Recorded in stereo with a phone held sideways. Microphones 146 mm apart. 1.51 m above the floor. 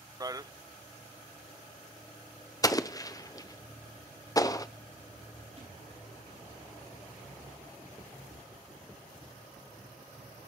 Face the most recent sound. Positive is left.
turn(degrees=-45)  # may be behind; listen again after turning